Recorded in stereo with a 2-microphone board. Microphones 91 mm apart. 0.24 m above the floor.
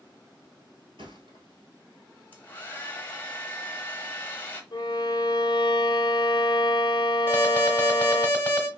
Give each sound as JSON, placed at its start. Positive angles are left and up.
{"t": 1.0, "sound": "a thud", "side_deg": -75, "distance_m": 1.2}
{"t": 2.3, "sound": "a hair dryer", "side_deg": 20, "distance_m": 0.8}
{"t": 4.7, "sound": "a violin", "side_deg": 65, "distance_m": 0.6}
{"t": 7.3, "sound": "an alarm", "side_deg": 20, "distance_m": 1.0}